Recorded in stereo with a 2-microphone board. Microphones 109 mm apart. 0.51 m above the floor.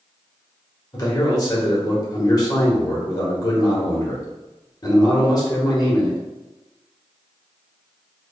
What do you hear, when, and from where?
0.9 s a man speaking: 35° left (ahead or behind), 1.5 m